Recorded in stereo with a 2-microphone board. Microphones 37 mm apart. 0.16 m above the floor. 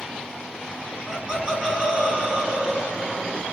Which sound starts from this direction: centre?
Laughter, at 1.1 s.